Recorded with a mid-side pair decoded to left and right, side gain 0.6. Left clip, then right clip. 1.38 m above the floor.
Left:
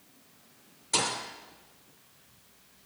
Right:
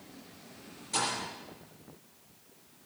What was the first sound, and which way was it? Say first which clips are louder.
A thud: left 3 dB; 40° left.